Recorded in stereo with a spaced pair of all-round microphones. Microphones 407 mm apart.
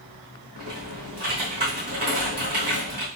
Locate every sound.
0.6 s typing on a keyboard: 65° right (ahead or behind), 1.8 m